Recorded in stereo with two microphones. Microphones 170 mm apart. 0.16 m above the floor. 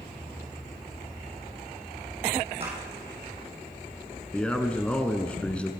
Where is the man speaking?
5° left (ahead or behind), 1.5 m.